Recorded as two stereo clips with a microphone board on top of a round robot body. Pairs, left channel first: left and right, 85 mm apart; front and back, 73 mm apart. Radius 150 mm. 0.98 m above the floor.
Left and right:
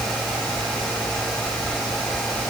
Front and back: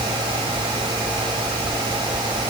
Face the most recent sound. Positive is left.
No sound to turn to.